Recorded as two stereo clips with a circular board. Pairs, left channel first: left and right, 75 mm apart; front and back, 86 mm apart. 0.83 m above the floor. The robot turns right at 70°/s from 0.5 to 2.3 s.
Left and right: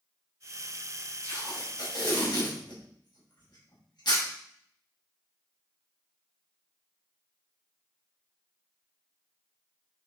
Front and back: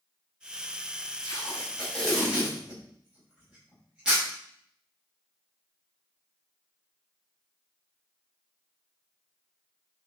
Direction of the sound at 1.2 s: 25° left.